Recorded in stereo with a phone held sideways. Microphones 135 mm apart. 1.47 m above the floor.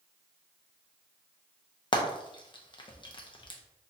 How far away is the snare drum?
No snare drum in this recording.